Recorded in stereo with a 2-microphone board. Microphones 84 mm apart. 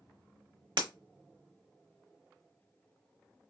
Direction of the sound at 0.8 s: 70° right (ahead or behind).